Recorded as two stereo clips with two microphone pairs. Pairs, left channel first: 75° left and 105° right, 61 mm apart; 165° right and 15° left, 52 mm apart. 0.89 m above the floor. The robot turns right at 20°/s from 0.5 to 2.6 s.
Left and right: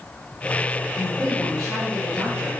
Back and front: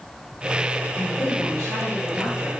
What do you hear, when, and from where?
0.9 s a woman speaking: 175° right, 1.9 m; by 2.5 s 145° right, 1.9 m